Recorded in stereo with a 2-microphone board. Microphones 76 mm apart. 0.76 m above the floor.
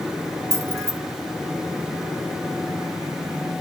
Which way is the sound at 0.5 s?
40° right (ahead or behind).